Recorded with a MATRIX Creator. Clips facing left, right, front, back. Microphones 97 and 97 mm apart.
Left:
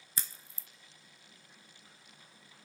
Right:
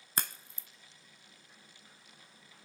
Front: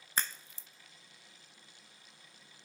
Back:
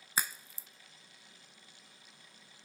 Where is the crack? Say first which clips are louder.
Right 8 dB, back 1 dB; 100° right, 0.6 m.